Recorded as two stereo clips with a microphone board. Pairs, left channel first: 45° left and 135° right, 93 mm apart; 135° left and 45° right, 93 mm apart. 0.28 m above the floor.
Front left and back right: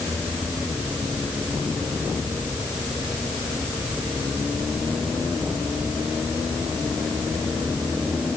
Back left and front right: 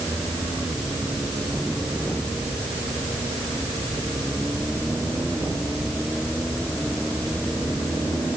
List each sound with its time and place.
Only background noise.